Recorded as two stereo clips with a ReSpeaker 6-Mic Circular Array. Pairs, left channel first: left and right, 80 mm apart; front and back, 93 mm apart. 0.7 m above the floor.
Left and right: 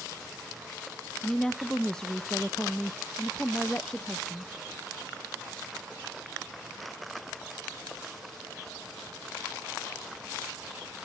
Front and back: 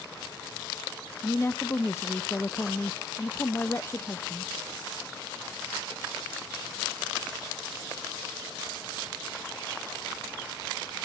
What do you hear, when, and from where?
1.2 s a woman speaking: 15° left, 0.6 m